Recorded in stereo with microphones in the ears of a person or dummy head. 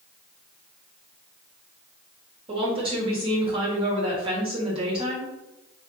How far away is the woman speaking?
About 1.0 m.